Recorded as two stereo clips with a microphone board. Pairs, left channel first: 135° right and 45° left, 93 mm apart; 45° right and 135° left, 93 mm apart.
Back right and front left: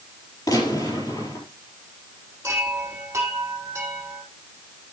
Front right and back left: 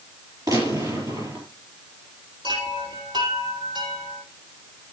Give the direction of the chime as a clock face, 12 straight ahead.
9 o'clock.